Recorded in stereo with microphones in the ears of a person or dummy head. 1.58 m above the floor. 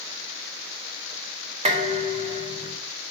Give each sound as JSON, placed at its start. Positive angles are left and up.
{"t": 1.6, "sound": "dishes clattering", "side_deg": -30, "distance_m": 1.8}